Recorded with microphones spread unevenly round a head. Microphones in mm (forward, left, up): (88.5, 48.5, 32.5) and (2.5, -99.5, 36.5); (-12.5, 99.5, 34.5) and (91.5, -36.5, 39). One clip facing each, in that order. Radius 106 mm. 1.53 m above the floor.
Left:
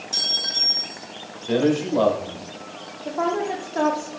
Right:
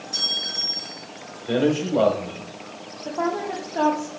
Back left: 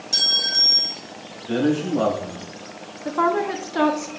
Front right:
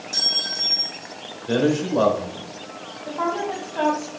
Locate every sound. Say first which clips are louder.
0.1 s a clink: even, even; 130° left, 1.6 m
1.5 s a man speaking: left 1 dB, even; 65° right, 1.6 m
3.0 s a woman speaking: left 2 dB, back left 4 dB; 150° left, 0.7 m